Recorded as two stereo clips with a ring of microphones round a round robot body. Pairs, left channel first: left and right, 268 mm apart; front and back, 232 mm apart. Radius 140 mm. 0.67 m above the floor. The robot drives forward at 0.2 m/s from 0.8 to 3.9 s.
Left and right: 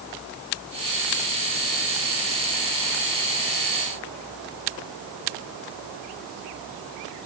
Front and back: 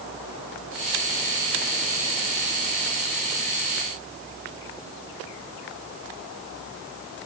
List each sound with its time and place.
Only background noise.